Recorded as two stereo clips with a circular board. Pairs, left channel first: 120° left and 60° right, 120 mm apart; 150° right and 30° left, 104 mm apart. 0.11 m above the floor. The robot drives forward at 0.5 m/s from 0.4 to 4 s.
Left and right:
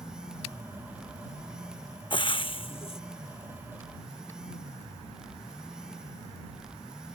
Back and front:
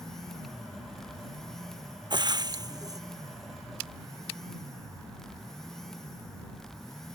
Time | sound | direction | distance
2.1 | frying | 75° left | ?